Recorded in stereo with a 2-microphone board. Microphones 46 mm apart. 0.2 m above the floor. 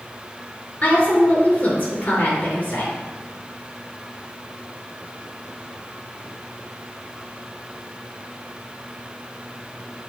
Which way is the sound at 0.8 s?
35° left (ahead or behind).